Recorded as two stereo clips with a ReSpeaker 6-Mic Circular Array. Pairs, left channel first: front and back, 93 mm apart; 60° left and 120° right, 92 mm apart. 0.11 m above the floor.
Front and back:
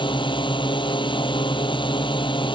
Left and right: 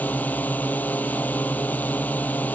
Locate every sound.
0.0 s a drone: 10° right